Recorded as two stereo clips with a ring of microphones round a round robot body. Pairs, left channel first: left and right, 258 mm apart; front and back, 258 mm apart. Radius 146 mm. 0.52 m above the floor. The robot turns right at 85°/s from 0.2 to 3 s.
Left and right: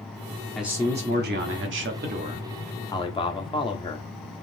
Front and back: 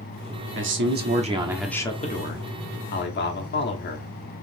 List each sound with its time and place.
0.6 s a man speaking: straight behind, 0.9 m; by 4.1 s 25° left, 0.9 m